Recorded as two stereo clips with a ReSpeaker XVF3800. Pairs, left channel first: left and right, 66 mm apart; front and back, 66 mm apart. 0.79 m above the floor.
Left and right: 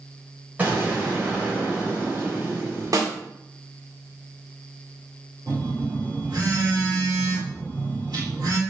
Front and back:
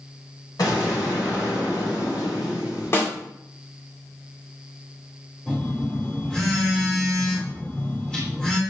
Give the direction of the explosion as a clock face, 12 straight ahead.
1 o'clock.